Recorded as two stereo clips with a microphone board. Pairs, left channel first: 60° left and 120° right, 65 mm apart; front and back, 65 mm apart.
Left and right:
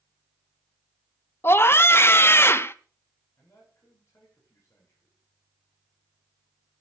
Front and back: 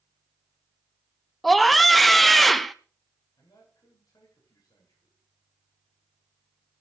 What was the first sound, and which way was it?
A scream, 90° left.